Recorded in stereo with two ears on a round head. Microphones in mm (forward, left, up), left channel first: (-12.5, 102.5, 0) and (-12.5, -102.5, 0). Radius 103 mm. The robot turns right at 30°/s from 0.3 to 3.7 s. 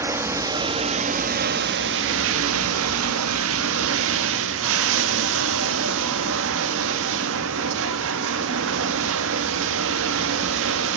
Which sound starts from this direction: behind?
Running water, at 0.0 s.